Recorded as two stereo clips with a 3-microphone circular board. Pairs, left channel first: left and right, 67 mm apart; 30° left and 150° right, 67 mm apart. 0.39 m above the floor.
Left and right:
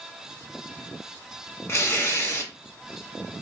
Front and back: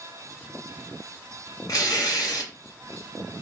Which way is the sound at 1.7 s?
45° left.